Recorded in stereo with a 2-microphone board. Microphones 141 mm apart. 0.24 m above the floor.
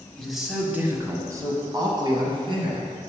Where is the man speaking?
5° left (ahead or behind), 1.0 m; by 2.9 s 40° right (ahead or behind), 2 m.